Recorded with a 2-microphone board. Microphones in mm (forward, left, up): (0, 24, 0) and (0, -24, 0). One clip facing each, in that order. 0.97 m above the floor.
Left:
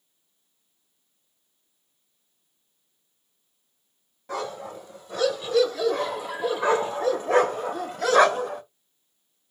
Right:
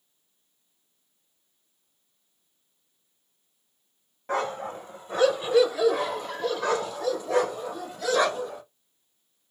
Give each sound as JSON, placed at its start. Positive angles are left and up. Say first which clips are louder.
{"t": 4.3, "sound": "a dog barking", "louder": "right 3 dB", "side_deg": -40, "distance_m": 1.5}